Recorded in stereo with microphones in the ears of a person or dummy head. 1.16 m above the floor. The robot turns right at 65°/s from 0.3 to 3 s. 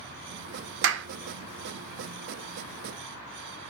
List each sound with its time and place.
0.8 s a clap: 70° right (ahead or behind), 0.7 m; by 1.1 s 60° right (ahead or behind), 0.7 m